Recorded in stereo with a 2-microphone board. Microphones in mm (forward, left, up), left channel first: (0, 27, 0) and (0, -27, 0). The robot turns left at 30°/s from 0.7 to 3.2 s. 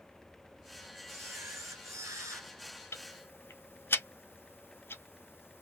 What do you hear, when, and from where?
1.1 s a camera shutter: 55° right, 1.0 m; by 2.5 s 95° right, 1.0 m
2.9 s ticking: 55° left (ahead or behind), 0.6 m; by 5.6 s 45° left (ahead or behind), 0.6 m